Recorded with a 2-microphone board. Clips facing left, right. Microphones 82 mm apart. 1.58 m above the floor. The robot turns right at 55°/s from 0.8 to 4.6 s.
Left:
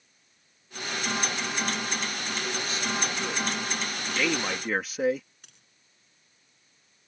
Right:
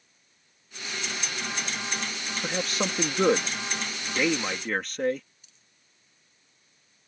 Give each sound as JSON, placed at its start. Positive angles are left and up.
{"t": 2.4, "sound": "a man speaking", "side_deg": -65}
{"t": 5.4, "sound": "a dropped coin", "side_deg": 65}